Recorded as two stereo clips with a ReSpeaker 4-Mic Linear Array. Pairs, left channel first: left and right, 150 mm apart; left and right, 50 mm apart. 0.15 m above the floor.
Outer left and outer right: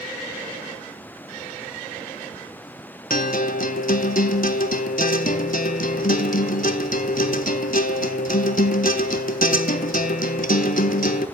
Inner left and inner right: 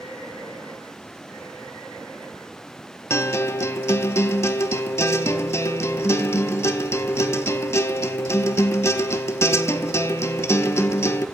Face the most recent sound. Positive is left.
turn(degrees=65)  # may be behind; listen again after turning